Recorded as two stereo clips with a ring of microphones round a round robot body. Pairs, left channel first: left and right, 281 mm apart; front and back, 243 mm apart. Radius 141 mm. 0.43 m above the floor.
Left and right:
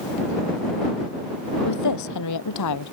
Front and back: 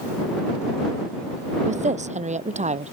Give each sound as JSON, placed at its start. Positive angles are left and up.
{"t": 1.6, "sound": "a woman speaking", "azimuth_deg": 120}